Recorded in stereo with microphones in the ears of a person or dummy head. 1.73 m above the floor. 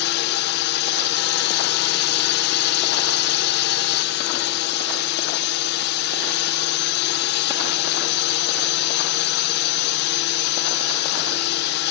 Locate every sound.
0.0 s a drone: 60° left (ahead or behind)